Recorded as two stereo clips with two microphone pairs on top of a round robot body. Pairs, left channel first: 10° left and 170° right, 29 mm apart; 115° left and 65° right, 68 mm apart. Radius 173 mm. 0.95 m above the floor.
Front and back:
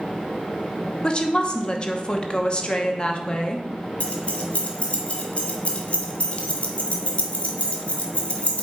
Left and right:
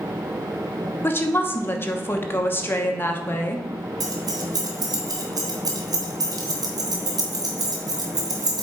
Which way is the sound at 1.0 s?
60° left.